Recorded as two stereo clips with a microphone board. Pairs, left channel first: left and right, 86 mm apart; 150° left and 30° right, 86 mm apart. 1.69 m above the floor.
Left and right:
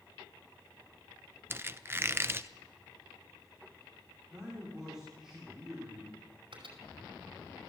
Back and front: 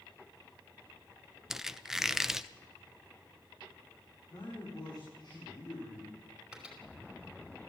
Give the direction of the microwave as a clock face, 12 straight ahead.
4 o'clock.